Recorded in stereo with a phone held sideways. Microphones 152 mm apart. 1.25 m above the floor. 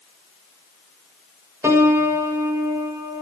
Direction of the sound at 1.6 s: 15° right (ahead or behind).